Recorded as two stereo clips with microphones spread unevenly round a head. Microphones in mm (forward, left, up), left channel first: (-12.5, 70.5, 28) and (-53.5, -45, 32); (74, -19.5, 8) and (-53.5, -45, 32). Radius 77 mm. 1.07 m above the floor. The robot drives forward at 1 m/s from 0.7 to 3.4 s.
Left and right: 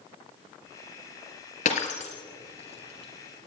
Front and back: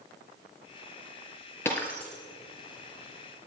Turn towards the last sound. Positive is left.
turn(degrees=120)